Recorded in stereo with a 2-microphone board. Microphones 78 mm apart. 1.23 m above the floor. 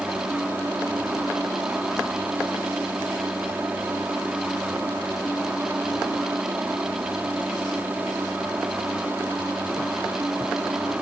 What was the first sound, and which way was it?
A helicopter, 20° right (ahead or behind).